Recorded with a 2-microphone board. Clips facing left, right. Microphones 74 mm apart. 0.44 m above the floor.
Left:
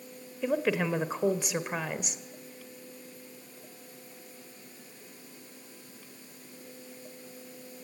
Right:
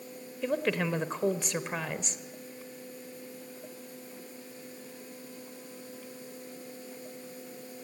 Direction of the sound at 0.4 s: 5° left (ahead or behind).